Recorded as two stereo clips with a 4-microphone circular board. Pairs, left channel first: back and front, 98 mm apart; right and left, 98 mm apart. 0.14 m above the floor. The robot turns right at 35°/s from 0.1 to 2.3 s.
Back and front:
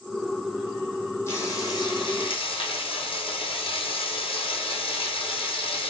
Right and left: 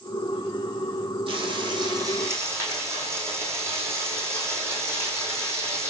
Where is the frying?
115° left, 2.5 m; by 5.9 s 155° left, 2.5 m.